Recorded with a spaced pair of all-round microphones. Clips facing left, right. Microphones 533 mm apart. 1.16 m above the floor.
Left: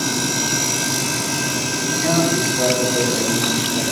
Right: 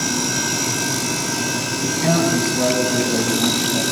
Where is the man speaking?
80° right, 7 m; by 3.8 s 75° right (ahead or behind), 6.5 m.